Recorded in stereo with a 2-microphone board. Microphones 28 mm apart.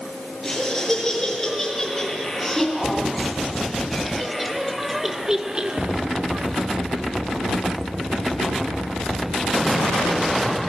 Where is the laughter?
15° left (ahead or behind), 8 m; by 6.5 s 55° right (ahead or behind), 1.3 m.